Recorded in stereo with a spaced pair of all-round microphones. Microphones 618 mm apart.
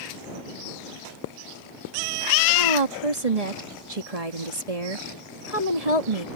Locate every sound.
2.5 s a woman speaking: 75° right (ahead or behind)